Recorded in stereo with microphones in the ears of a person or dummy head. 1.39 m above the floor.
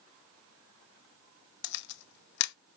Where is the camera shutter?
65° left (ahead or behind), 0.6 m.